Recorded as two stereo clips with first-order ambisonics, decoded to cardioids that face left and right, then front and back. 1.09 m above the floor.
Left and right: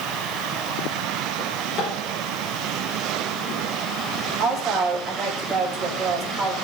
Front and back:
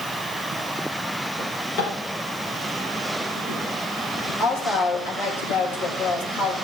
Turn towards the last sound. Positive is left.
turn(degrees=-15)